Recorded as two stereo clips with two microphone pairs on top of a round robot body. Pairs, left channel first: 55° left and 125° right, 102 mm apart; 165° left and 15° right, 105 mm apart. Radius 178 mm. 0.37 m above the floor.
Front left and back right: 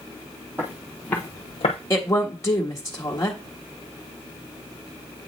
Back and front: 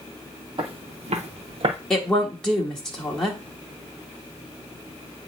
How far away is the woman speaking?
About 1.3 m.